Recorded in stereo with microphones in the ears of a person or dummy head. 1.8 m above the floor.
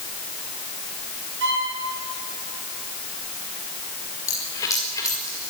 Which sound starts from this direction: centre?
A dropped coin, at 4.3 s.